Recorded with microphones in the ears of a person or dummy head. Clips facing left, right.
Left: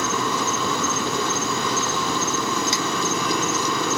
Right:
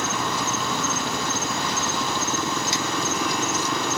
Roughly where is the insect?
Left.